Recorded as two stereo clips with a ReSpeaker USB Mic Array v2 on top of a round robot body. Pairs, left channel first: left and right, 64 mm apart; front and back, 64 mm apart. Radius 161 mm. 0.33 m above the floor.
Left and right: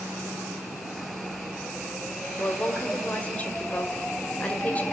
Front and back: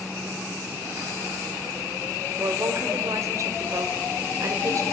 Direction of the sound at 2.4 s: 155° left.